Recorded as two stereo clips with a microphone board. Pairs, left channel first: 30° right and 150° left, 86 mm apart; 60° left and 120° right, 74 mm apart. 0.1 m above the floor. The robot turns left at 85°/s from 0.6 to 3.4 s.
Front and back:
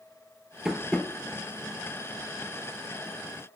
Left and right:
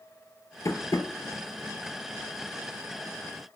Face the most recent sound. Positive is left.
turn(degrees=-160)